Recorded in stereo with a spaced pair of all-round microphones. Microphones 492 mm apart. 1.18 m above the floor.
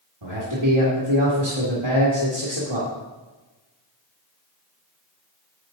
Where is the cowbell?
No cowbell in this recording.